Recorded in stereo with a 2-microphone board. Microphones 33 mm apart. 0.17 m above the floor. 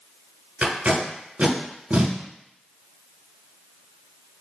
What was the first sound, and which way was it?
Tape being pulled, 40° right (ahead or behind).